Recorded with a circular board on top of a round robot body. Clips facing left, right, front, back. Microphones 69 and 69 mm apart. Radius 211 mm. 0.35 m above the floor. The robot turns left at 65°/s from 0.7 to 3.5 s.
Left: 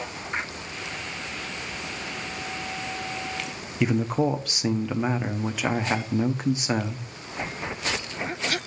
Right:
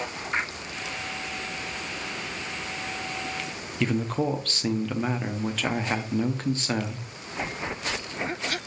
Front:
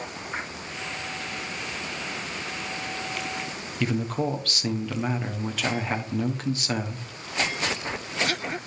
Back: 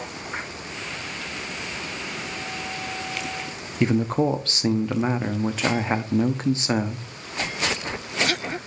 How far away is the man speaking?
About 0.9 m.